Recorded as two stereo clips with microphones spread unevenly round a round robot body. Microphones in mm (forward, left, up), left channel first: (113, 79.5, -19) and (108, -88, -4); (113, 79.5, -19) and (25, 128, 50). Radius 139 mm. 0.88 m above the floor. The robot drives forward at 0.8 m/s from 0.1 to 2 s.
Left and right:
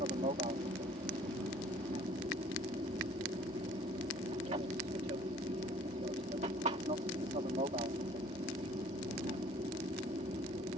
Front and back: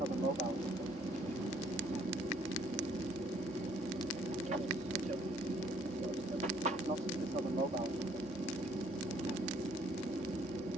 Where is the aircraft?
145° right; by 10.8 s 150° right.